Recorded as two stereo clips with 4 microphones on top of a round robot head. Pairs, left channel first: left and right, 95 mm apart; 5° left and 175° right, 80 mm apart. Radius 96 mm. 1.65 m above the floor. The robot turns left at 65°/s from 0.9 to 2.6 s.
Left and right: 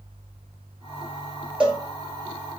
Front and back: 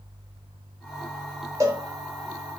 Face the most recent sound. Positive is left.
turn(degrees=125)